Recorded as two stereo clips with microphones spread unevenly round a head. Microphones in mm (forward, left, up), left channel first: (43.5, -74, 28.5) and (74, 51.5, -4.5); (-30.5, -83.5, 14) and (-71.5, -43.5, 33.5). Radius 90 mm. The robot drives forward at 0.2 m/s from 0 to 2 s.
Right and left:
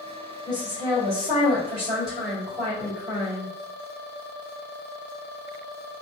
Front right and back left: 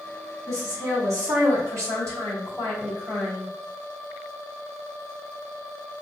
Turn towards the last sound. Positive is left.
turn(degrees=160)